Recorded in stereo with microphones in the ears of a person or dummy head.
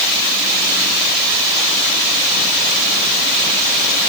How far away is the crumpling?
No crumpling in this recording.